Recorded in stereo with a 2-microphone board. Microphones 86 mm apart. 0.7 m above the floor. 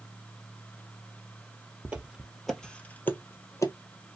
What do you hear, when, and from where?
1.9 s footsteps: 20° right (ahead or behind), 0.9 m; by 3.7 s 45° left (ahead or behind), 1.0 m